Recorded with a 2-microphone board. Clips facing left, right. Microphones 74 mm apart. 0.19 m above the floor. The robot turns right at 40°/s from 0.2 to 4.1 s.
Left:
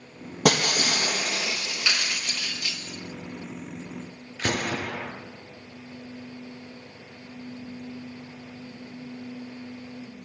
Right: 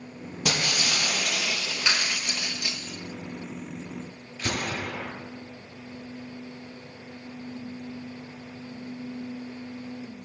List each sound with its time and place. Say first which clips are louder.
0.5 s breaking glass: left 6 dB; 115° left, 3 m; by 2.8 s 150° right, 3 m
1.9 s a clap: right 1 dB; 20° right (ahead or behind), 1.8 m; by 2.2 s 10° right (ahead or behind), 1.8 m
4.4 s a gunshot: left 3 dB; 70° left (ahead or behind), 4 m